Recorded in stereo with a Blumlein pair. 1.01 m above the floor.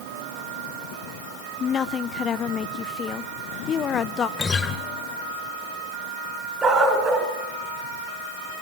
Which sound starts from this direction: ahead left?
A woman speaking, at 1.6 s.